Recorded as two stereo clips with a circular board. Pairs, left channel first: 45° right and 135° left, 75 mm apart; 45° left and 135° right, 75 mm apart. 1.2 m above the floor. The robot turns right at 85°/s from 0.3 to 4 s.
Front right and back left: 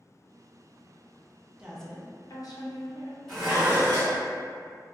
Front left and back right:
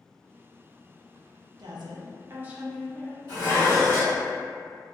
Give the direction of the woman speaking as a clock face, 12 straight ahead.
5 o'clock.